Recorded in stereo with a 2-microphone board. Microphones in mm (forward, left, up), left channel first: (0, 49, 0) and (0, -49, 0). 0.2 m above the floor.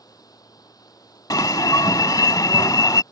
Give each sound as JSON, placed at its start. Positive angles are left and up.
{"t": 0.0, "sound": "running water", "side_deg": 40}
{"t": 1.3, "sound": "an alarm", "side_deg": 40}